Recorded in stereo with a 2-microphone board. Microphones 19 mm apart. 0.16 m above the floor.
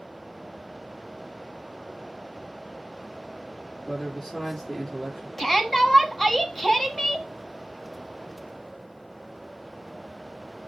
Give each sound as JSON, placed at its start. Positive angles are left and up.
{"t": 3.9, "sound": "a man speaking", "side_deg": 25, "distance_m": 3.5}
{"t": 5.4, "sound": "a shout", "side_deg": 10, "distance_m": 1.2}